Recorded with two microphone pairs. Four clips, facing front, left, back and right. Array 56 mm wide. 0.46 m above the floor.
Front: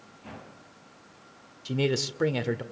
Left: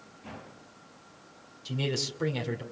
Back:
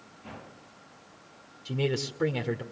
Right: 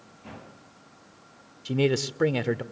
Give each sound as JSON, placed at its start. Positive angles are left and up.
{"t": 1.6, "sound": "a man speaking", "azimuth_deg": -80, "distance_m": 1.7}